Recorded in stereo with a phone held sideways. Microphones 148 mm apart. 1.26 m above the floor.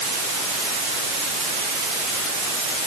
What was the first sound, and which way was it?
Only background noise.